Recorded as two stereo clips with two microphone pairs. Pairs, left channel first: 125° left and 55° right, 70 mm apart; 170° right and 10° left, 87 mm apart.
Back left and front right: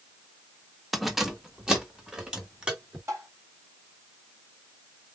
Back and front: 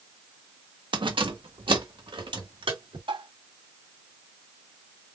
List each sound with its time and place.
0.9 s keys jangling: 35° left, 0.9 m; by 3.0 s 20° left, 3 m
3.1 s tapping: 5° right, 3.5 m